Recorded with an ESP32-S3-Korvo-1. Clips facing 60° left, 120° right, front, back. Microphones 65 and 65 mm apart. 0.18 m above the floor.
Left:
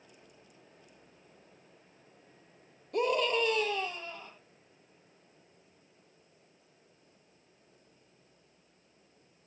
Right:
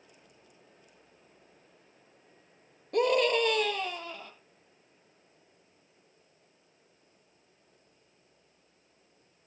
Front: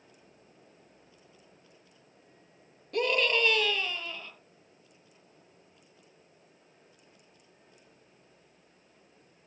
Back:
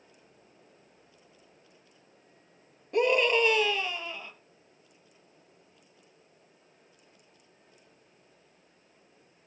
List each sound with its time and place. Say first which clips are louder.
2.9 s a scream: right 4 dB, back 4 dB; 115° right, 3 m; by 4.3 s 105° right, 4.5 m